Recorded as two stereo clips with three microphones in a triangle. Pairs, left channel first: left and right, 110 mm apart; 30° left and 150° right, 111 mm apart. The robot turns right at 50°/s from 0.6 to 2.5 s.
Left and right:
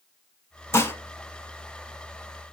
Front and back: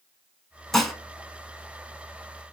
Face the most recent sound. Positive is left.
turn(degrees=-155)